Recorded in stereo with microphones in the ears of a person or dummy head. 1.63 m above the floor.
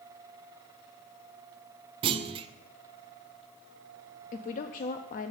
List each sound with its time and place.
2.0 s a clunk: 35° right (ahead or behind), 0.5 m
4.3 s a woman speaking: 40° left (ahead or behind), 0.5 m